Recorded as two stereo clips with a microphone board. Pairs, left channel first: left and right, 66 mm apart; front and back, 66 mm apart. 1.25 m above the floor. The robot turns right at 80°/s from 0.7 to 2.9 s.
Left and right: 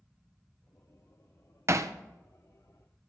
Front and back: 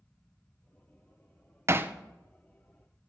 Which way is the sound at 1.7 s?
130° right.